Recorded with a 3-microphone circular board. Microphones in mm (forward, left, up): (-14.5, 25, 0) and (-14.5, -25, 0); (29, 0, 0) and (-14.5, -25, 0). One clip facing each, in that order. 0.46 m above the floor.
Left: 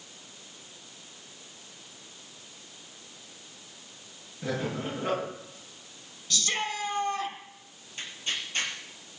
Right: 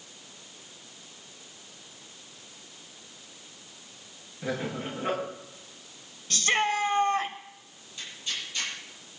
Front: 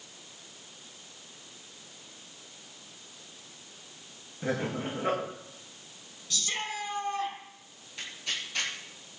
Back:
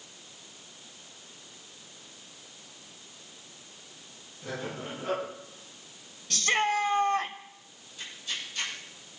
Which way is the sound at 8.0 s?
40° left.